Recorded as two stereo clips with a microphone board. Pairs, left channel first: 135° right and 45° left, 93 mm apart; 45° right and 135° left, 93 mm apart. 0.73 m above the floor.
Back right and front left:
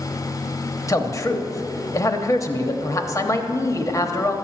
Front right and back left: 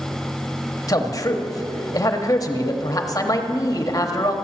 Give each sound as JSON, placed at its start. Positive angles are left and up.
{"t": 0.9, "sound": "a man speaking", "azimuth_deg": -85, "distance_m": 0.9}